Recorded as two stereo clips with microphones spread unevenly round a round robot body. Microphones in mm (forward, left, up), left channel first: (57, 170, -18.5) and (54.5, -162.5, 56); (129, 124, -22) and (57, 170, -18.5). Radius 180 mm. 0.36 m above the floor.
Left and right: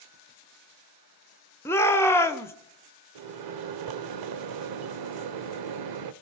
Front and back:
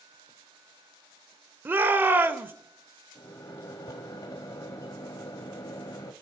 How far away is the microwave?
About 1.0 m.